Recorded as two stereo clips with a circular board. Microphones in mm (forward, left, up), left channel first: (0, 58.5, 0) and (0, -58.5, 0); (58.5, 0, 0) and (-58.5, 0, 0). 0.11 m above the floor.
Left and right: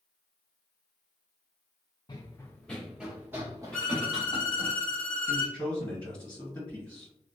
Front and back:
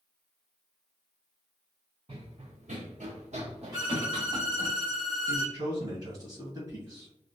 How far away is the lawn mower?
No lawn mower in this recording.